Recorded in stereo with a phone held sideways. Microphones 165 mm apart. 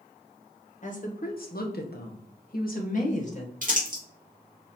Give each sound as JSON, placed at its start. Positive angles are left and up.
{"t": 0.8, "sound": "a woman speaking", "side_deg": 50, "distance_m": 1.2}
{"t": 3.6, "sound": "crumpling", "side_deg": -60, "distance_m": 1.7}